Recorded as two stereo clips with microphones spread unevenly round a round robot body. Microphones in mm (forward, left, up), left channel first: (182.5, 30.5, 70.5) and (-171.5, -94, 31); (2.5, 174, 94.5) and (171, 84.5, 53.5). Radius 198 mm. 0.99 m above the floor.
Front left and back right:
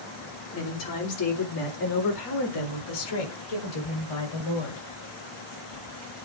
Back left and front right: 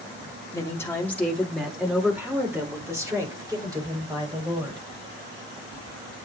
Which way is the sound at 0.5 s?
75° left.